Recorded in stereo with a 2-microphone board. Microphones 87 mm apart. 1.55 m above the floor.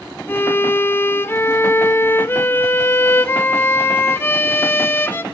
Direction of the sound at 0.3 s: 25° left (ahead or behind).